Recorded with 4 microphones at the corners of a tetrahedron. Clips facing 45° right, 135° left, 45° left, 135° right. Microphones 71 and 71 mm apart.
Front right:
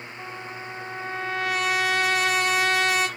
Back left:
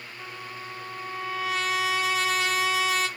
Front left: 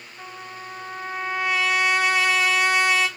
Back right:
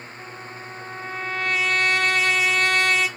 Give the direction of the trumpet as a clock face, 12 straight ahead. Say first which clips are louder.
Front right 2 dB, front left 3 dB; 1 o'clock.